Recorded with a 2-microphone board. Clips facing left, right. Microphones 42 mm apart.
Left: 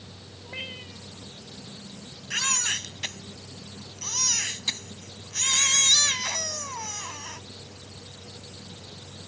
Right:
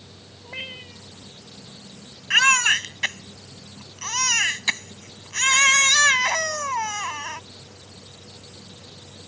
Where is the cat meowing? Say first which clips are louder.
Right 2 dB; 15° right (ahead or behind).